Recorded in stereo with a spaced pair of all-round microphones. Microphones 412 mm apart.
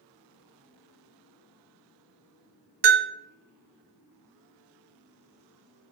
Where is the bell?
70° right (ahead or behind), 0.5 m.